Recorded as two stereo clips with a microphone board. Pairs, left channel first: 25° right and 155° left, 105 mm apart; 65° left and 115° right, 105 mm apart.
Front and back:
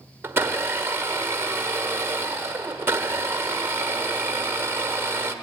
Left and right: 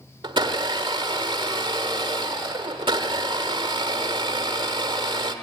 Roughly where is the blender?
Behind right.